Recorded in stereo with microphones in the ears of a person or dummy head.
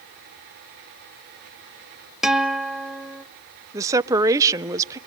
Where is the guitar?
5° right (ahead or behind), 0.8 m.